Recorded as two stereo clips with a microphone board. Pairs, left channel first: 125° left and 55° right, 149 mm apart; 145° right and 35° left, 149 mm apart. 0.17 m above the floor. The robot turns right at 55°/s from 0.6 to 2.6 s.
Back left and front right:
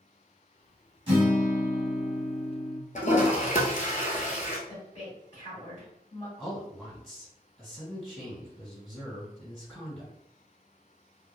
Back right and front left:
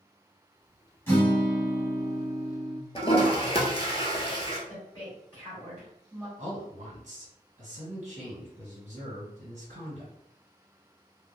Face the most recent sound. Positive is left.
turn(degrees=35)